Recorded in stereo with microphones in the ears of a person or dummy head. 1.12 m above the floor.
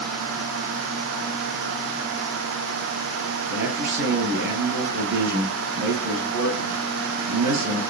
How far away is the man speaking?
About 10 m.